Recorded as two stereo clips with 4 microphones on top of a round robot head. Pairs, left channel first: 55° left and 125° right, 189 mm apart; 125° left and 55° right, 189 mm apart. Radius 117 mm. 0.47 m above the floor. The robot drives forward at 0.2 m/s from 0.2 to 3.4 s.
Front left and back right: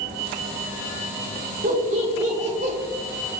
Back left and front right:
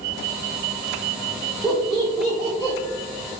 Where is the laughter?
145° right, 1.4 m; by 2.8 s 150° right, 1.5 m.